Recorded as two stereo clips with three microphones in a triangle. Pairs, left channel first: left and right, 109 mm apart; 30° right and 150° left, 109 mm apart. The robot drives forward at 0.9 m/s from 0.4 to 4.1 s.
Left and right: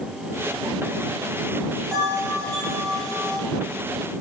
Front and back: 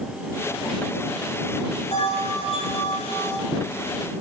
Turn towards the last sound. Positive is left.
turn(degrees=-40)